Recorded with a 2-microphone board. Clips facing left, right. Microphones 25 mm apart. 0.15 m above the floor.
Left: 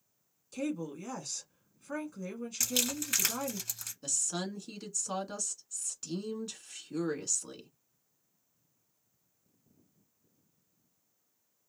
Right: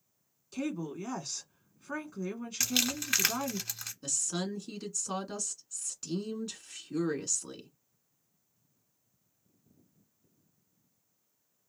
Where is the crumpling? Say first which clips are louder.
Right 2 dB; 25° right (ahead or behind), 1.3 m.